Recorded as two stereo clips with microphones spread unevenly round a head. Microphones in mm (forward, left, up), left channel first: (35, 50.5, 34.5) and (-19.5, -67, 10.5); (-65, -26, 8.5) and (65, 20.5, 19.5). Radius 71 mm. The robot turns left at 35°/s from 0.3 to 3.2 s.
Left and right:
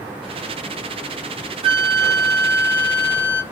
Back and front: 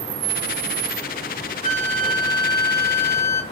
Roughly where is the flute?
Behind.